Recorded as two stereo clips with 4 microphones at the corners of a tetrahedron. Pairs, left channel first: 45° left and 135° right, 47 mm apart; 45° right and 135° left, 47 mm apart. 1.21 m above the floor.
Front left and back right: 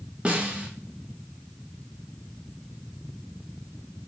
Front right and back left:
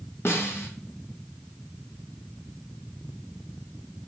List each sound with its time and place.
0.2 s a snare drum: 70° right, 0.8 m